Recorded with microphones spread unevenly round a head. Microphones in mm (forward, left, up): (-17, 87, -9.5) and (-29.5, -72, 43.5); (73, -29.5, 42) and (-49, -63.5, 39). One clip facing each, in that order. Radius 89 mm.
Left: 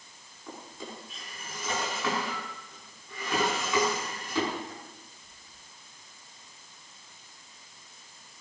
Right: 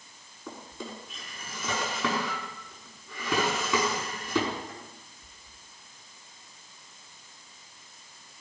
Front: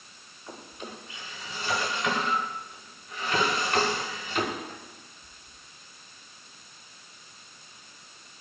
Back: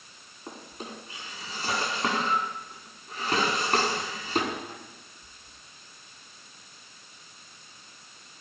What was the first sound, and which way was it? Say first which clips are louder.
A drawer: right 2 dB, back 1 dB; 110° right.